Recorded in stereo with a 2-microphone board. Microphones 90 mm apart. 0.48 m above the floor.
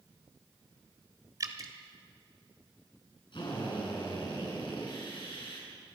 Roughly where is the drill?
Left.